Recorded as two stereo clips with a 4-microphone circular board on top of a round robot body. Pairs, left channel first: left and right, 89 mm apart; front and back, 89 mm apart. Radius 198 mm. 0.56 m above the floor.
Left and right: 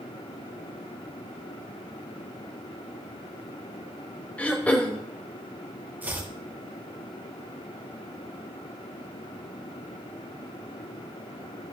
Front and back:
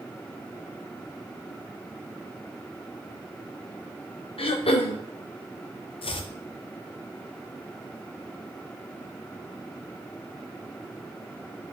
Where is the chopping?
20° right, 0.7 m.